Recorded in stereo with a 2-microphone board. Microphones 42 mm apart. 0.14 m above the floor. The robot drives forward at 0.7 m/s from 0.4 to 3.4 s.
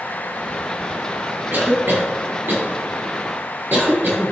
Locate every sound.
1.5 s a cough: 55° right (ahead or behind), 2.5 m